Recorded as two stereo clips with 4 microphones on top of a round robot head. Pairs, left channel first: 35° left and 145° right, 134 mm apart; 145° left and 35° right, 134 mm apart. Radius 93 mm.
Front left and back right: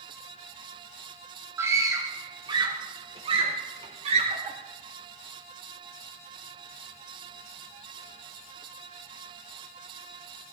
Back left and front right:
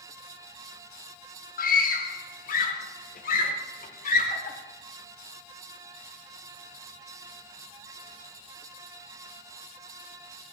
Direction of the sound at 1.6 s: 145° left.